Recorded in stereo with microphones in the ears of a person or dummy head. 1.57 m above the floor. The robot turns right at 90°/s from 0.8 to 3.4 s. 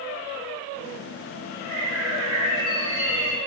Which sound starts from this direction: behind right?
A bird, at 1.6 s.